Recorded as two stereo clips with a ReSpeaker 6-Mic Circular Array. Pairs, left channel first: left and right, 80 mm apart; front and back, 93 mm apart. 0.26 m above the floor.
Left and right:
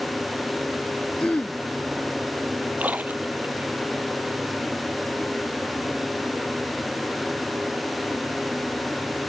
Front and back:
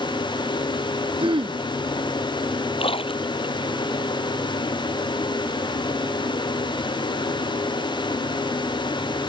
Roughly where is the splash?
Ahead.